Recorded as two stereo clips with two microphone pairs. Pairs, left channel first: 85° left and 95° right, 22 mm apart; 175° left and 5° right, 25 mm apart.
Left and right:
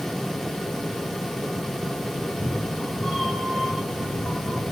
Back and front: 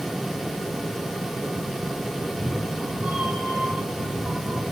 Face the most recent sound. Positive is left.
turn(degrees=20)